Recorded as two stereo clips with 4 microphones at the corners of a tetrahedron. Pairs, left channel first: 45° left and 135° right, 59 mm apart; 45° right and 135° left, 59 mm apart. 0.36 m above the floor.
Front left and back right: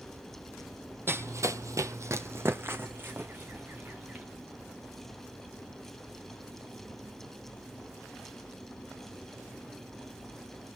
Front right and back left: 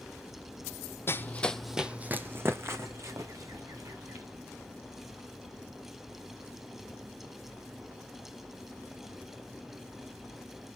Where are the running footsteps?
90° right, 0.8 m; by 4.2 s 160° left, 3 m.